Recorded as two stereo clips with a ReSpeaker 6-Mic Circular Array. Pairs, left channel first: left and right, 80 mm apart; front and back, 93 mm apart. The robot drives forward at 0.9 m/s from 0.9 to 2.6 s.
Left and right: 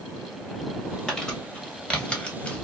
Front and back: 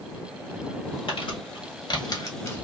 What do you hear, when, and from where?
1.1 s crumpling: 5° left, 1.7 m; by 2.6 s 40° left, 0.8 m